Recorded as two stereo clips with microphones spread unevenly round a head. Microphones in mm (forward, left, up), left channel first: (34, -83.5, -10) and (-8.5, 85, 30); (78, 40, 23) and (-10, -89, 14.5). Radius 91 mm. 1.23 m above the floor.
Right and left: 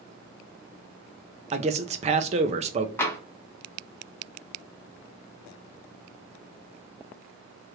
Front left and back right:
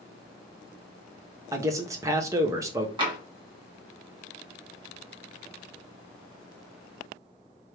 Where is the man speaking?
165° left, 0.6 m.